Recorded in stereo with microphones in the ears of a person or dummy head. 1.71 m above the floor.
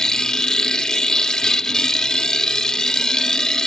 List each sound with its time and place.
0.0 s a machine running: centre (ahead or behind)